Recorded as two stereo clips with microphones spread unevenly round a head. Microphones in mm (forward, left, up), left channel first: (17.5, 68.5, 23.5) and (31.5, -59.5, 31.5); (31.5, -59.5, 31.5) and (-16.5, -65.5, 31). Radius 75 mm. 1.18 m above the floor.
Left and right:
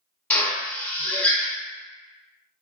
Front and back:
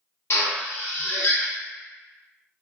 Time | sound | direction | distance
0.3 | a drill | 20° left | 0.6 m